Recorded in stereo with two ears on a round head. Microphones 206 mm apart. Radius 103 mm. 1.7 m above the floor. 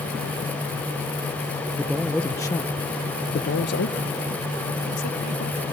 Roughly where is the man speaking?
Centre.